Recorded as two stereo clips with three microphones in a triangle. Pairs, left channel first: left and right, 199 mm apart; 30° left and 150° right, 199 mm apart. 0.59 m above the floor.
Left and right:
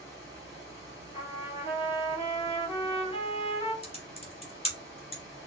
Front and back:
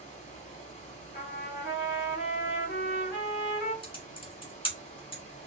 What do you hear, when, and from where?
0.0 s running water: 20° right, 1.7 m
1.1 s a trumpet: 30° left, 2.5 m
3.8 s typing on a keyboard: 70° left, 1.4 m